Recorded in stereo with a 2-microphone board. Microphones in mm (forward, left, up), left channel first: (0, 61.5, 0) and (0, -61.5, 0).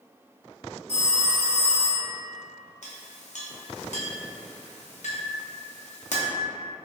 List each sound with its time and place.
0.9 s a phone ringing: 60° left (ahead or behind), 1.2 m
2.8 s a clink: 70° left (ahead or behind), 0.5 m